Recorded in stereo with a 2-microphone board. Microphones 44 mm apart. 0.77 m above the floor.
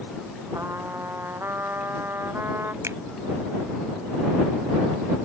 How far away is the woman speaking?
I don't hear a woman speaking.